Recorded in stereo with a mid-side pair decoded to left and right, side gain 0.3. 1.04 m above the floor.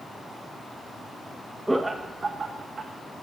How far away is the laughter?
About 0.7 m.